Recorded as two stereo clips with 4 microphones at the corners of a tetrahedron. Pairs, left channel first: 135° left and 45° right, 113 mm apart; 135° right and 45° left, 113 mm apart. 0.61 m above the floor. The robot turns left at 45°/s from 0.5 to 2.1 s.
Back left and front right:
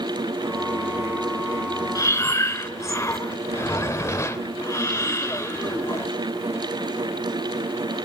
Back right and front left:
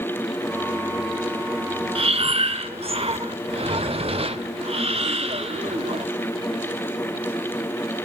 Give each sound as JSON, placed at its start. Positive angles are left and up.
{"t": 1.9, "sound": "breathing", "azimuth_deg": 80, "distance_m": 0.6}